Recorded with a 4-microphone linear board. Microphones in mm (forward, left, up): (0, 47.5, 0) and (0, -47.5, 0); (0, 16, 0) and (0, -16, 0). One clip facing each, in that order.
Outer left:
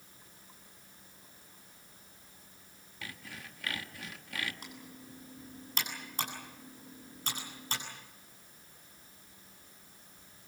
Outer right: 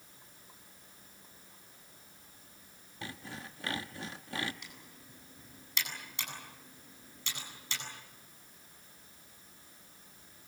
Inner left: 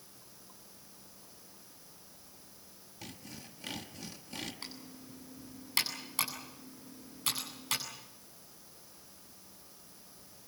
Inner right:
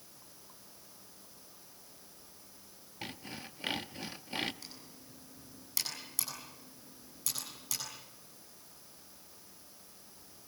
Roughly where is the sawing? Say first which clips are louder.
Outer right 3 dB, inner right 5 dB; right.